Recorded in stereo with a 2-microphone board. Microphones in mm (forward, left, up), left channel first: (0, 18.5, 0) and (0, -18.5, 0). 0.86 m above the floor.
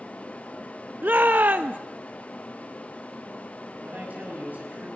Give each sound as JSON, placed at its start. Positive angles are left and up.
{"t": 1.0, "sound": "a shout", "side_deg": -55, "distance_m": 0.5}
{"t": 3.8, "sound": "a man speaking", "side_deg": -55, "distance_m": 5.5}